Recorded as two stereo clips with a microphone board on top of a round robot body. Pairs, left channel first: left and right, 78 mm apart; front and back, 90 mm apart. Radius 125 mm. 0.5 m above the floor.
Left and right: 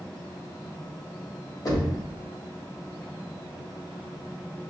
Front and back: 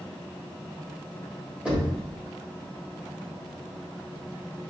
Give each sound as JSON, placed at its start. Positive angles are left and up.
{"t": 1.6, "sound": "knocking", "azimuth_deg": 105, "distance_m": 1.4}